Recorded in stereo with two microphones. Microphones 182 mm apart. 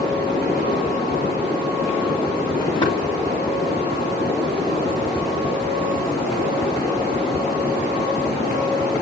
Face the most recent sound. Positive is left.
turn(degrees=20)  # may be behind; listen again after turning